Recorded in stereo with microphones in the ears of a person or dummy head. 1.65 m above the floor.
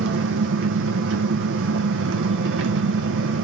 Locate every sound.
0.0 s an engine running: 70° right (ahead or behind), 1.2 m